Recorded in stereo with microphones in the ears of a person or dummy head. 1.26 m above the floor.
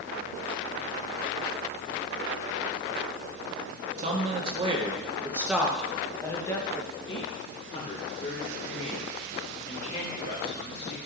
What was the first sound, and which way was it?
A man speaking, 45° right (ahead or behind).